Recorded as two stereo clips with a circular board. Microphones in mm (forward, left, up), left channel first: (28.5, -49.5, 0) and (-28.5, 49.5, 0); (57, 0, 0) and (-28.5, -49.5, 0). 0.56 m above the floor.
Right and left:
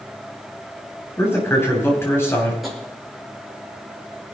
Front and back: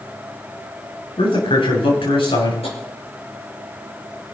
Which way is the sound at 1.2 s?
10° left.